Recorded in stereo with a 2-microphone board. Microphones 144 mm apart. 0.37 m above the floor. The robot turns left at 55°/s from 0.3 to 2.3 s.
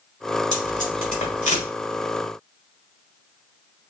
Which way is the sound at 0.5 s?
50° left (ahead or behind).